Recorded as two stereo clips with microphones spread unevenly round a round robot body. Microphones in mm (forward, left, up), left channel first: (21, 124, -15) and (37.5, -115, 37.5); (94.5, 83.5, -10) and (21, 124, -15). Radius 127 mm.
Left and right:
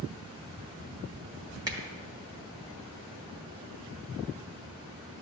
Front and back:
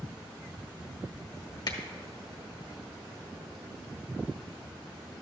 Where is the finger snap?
5° right, 1.3 m.